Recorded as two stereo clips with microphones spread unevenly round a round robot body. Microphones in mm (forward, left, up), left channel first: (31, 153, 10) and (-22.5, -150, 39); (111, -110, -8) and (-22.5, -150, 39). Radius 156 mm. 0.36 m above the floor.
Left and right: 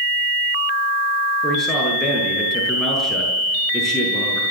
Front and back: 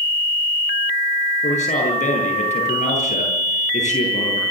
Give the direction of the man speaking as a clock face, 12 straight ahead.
12 o'clock.